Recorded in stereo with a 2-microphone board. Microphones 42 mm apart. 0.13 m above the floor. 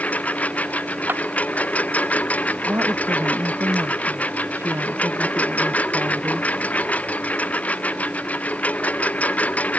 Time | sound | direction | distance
0.0 | a lawn mower | 40° left (ahead or behind) | ?
1.1 | a clap | 60° right (ahead or behind) | ?
2.6 | a woman speaking | 80° right | ?